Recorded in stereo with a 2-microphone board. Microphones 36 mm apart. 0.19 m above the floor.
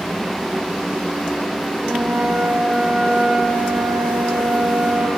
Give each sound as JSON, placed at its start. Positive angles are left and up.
{"t": 1.8, "sound": "a flute", "side_deg": -65, "distance_m": 5.0}